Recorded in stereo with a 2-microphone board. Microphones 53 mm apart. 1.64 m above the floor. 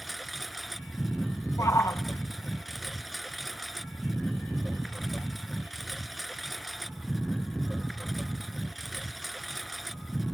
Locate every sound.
0.0 s a lawn mower: centre (ahead or behind)
1.6 s a shout: 80° left